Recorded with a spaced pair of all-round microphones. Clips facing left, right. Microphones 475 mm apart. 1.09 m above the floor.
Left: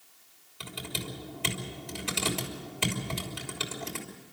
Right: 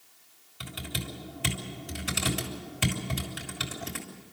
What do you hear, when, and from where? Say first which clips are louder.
0.6 s typing on a keyboard: even; 35° right (ahead or behind), 3 m